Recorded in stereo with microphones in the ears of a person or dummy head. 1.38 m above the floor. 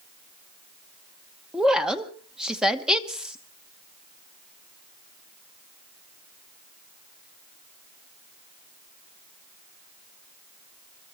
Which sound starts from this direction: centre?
A woman speaking, at 1.5 s.